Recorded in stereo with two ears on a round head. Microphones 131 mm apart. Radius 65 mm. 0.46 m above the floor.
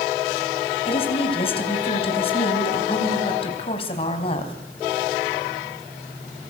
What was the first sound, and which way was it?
A woman speaking, 40° left (ahead or behind).